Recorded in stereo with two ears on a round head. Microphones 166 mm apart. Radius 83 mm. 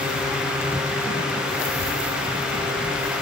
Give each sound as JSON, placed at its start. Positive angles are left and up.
{"t": 1.6, "sound": "a child speaking", "side_deg": 55, "distance_m": 2.0}